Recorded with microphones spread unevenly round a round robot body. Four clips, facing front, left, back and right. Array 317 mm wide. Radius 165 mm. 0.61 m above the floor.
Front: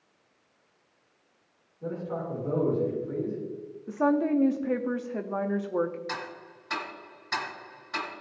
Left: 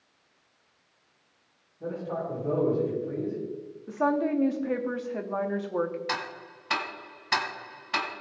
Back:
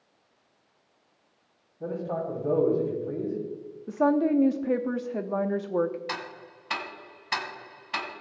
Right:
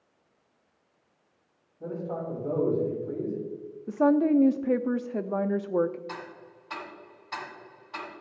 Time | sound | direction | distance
1.8 | a man speaking | straight behind | 5 m
3.9 | a woman speaking | 115° right | 0.6 m
6.1 | ticking | 105° left | 1.8 m